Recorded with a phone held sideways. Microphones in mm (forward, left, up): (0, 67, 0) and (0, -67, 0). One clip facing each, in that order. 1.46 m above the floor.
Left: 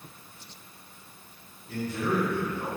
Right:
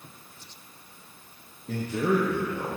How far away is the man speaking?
About 1.0 m.